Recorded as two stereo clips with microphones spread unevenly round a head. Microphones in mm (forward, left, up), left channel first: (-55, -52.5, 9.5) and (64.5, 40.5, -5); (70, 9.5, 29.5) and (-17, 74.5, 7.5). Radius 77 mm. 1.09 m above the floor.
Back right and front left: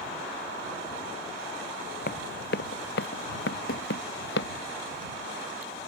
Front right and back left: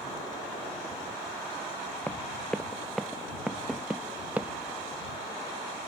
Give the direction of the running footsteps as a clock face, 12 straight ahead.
4 o'clock.